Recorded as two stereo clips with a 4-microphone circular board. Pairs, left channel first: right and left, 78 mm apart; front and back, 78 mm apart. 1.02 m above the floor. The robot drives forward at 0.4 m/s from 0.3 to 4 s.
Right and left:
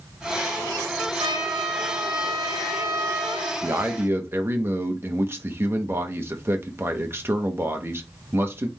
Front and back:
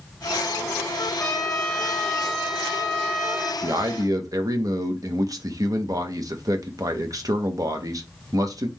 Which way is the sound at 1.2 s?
60° left.